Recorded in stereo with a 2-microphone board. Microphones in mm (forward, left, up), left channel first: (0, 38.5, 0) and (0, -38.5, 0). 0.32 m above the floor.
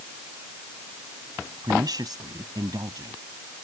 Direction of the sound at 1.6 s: 60° right (ahead or behind).